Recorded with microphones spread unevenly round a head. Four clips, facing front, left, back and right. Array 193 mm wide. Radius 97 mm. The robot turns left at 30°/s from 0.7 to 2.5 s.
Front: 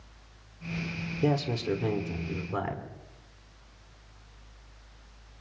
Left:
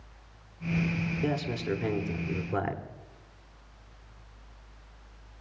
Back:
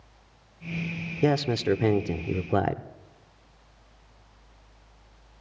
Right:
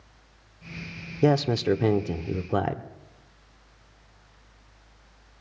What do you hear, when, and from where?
1.2 s a man speaking: 110° right, 0.8 m; by 2.8 s 145° right, 0.8 m